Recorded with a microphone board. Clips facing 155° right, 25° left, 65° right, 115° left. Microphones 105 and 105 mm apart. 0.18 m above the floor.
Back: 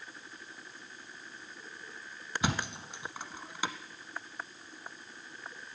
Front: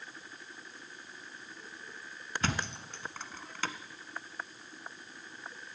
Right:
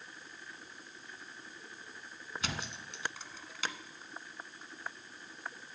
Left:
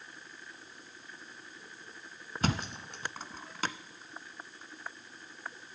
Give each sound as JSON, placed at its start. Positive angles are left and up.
{"t": 2.4, "sound": "a thud", "azimuth_deg": 130, "distance_m": 0.8}